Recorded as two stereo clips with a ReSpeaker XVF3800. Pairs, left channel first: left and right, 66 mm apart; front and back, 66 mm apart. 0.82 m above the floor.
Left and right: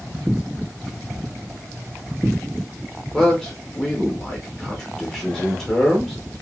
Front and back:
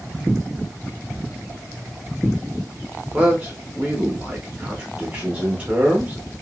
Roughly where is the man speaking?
Behind.